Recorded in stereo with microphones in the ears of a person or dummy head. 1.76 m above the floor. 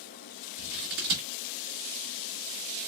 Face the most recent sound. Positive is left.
turn(degrees=-40)  # may be behind; listen again after turning